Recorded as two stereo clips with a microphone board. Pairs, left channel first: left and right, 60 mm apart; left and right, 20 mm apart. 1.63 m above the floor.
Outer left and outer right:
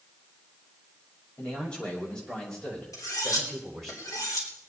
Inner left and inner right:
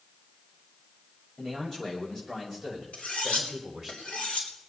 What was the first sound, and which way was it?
A man speaking, 20° left (ahead or behind).